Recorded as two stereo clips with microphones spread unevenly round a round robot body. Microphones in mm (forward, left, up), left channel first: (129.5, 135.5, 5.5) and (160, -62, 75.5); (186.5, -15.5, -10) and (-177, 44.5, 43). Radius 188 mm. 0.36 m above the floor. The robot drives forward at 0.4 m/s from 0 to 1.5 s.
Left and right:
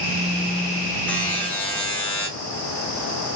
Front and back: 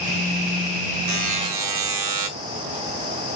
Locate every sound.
1.1 s a buzzer: 145° left, 0.8 m; by 2.3 s 155° left, 0.9 m